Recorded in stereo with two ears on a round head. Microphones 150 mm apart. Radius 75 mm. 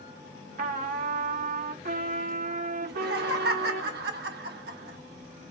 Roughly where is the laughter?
Right.